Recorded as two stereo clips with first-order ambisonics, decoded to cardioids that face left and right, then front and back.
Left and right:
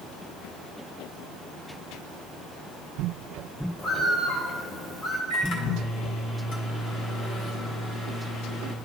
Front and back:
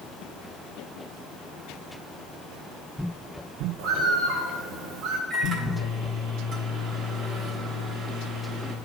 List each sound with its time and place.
3.8 s a bird: 155° left, 1.0 m
5.3 s a microwave: 125° left, 1.1 m